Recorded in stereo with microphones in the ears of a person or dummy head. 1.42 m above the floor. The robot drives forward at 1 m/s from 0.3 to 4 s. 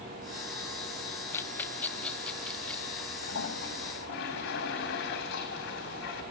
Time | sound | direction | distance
1.3 | a rattle | 15° left (ahead or behind) | 0.6 m
3.2 | a toilet flushing | 75° left (ahead or behind) | 4 m